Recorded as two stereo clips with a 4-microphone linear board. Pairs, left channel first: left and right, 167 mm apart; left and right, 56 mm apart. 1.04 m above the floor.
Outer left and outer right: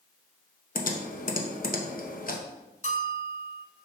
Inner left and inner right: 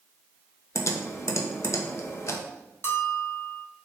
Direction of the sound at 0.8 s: 55° left (ahead or behind).